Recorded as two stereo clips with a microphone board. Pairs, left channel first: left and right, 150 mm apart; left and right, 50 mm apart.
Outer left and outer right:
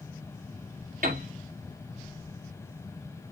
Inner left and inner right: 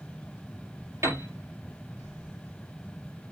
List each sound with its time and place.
1.0 s a piano: 70° right (ahead or behind), 5 m